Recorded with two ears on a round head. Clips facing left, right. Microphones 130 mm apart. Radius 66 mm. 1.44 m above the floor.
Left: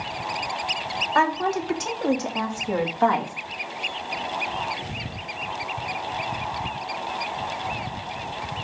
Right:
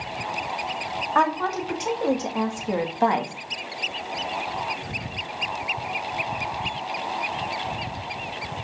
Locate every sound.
1.1 s a woman speaking: 5° left (ahead or behind), 3 m; by 3.3 s 25° right (ahead or behind), 2 m